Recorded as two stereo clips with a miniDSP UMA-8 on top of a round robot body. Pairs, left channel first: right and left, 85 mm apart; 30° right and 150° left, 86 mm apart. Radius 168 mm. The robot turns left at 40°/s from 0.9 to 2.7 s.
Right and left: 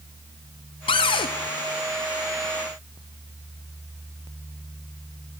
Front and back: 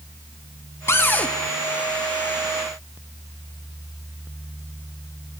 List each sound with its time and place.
0.9 s a cupboard door: 90° right, 0.5 m; by 1.3 s 105° right, 0.5 m